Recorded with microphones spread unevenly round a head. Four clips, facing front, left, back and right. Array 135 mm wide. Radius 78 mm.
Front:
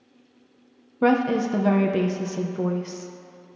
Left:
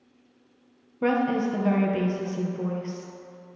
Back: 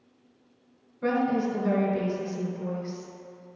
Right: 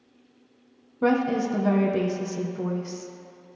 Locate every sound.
1.0 s a woman speaking: 5° right, 0.8 m